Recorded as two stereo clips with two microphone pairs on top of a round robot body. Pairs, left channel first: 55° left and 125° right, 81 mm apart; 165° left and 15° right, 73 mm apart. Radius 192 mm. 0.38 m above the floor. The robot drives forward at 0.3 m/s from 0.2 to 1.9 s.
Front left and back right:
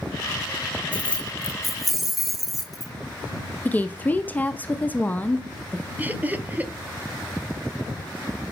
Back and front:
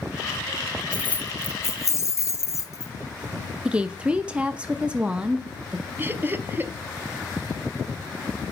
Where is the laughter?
65° right, 0.8 m.